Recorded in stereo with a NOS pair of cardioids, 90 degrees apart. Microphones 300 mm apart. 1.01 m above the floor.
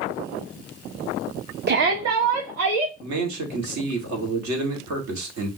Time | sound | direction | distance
1.7 | a shout | 35° right | 0.8 m
3.0 | a man speaking | 65° right | 2 m